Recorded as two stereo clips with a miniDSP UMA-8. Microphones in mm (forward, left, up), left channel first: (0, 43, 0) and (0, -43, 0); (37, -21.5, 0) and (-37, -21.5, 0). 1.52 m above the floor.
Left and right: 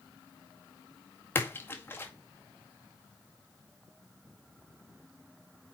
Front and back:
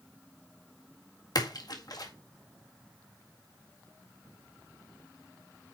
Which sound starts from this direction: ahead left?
A splash, at 1.4 s.